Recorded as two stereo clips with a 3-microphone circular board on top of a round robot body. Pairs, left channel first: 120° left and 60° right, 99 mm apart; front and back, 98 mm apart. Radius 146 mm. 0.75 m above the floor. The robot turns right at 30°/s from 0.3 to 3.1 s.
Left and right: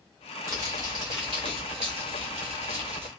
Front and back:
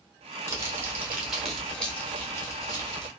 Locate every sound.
0.5 s crumpling: 120° right, 0.9 m; by 3.1 s 40° right, 0.9 m